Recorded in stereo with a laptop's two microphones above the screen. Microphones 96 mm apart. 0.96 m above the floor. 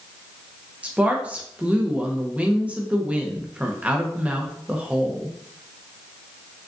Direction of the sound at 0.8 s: 15° right (ahead or behind).